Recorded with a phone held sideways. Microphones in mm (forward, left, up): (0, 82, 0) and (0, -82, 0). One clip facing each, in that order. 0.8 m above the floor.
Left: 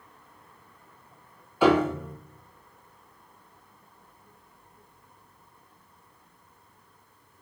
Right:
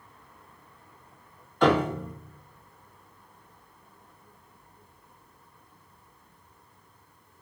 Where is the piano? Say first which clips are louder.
Left 2 dB; 5° left (ahead or behind), 0.6 m.